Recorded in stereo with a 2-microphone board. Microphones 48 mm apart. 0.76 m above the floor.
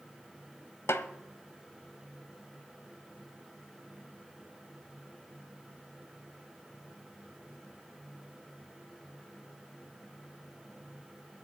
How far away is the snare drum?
About 1.0 m.